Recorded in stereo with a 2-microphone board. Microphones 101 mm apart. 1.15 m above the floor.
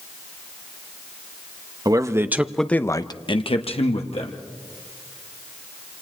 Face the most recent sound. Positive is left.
turn(degrees=85)